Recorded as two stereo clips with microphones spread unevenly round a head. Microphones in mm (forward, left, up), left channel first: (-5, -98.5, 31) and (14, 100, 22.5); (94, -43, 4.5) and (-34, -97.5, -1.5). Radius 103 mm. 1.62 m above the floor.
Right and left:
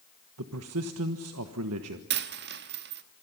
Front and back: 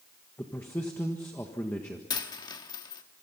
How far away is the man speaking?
About 1.4 m.